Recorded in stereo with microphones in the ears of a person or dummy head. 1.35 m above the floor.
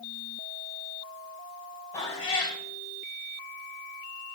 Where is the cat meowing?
20° left (ahead or behind), 3 m.